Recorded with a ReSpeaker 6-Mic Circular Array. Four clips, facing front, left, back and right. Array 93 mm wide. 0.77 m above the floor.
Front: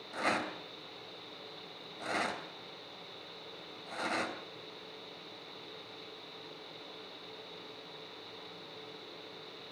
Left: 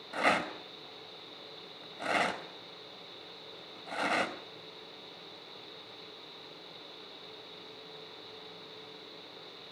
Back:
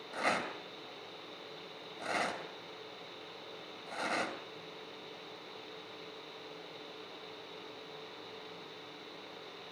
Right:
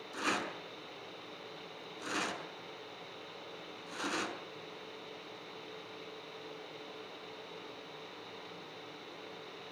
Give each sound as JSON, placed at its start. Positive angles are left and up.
{"t": 0.1, "sound": "a rattle", "azimuth_deg": 90, "distance_m": 2.5}